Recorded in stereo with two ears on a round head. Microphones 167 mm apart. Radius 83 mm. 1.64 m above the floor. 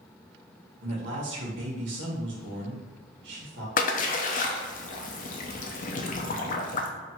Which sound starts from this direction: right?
A man speaking, at 0.8 s.